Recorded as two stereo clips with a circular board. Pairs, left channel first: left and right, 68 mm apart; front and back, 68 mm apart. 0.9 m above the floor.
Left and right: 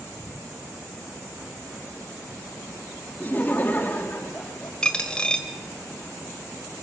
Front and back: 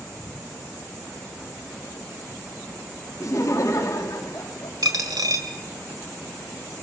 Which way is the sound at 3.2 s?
30° left.